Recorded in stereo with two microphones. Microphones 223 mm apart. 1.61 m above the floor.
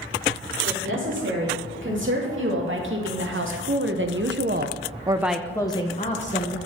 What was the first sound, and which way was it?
A woman speaking, 60° right (ahead or behind).